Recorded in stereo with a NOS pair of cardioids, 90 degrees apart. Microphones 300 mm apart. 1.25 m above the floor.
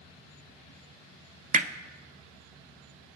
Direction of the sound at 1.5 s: 25° right.